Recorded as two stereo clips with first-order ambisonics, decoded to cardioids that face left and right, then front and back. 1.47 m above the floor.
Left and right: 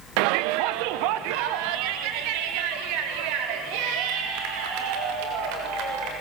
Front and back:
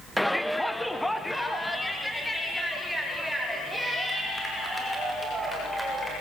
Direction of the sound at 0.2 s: 90° right.